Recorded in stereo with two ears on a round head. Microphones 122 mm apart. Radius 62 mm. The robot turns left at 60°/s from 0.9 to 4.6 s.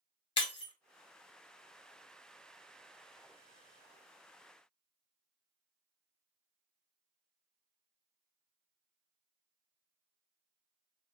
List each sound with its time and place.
0.4 s breaking glass: 40° left (ahead or behind), 0.6 m